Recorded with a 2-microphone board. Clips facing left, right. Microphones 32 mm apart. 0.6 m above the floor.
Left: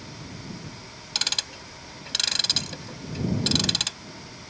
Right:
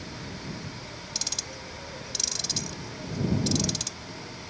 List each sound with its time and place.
0.0 s an insect: 75° right (ahead or behind)
1.1 s ticking: 60° left (ahead or behind)